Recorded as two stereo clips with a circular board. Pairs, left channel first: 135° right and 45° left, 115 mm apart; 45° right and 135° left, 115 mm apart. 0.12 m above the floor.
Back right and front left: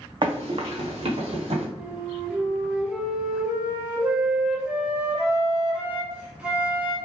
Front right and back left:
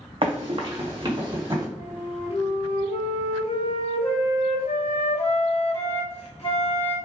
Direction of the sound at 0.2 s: 95° left.